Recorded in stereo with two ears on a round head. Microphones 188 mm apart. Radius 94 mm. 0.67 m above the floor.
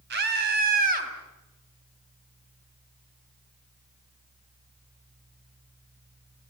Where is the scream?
55° right (ahead or behind), 4.5 m; by 1.1 s 40° right (ahead or behind), 5 m.